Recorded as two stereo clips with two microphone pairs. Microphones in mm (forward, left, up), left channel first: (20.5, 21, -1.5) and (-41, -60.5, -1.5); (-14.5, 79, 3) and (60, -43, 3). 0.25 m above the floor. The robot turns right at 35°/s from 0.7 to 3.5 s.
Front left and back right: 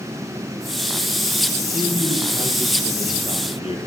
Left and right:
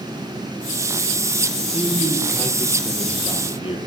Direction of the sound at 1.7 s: 10° left.